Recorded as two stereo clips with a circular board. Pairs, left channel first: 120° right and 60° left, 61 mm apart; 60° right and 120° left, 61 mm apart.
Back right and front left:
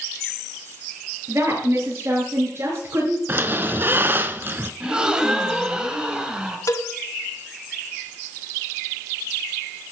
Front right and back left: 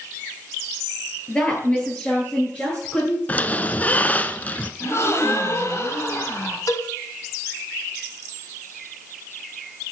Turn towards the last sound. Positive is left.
turn(degrees=-85)